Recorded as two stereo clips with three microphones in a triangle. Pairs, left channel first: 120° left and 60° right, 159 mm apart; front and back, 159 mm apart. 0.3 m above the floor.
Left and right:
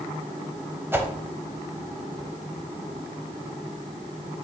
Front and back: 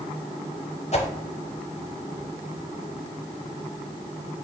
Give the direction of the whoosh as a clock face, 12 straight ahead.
12 o'clock.